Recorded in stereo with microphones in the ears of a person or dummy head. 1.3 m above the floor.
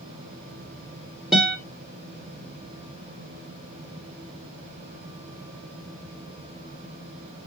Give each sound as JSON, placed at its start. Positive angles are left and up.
{"t": 1.3, "sound": "a guitar", "side_deg": 0, "distance_m": 1.7}